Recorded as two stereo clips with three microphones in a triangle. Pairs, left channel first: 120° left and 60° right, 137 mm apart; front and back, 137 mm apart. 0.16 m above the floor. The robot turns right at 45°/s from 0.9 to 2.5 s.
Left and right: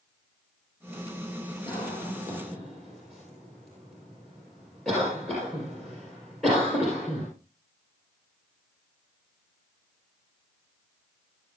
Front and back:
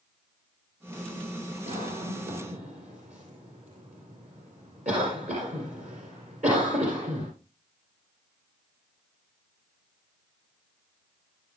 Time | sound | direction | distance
1.7 | a cough | 170° left | 5.5 m